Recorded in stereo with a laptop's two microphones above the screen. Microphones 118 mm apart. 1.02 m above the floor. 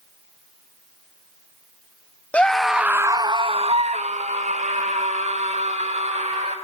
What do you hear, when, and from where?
2.3 s a scream: 10° left (ahead or behind), 1.1 m; by 6.5 s 75° right (ahead or behind), 3 m